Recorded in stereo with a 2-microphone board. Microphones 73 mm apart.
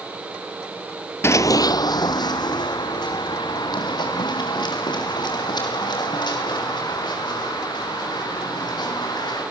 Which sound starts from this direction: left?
Running footsteps, at 1.2 s.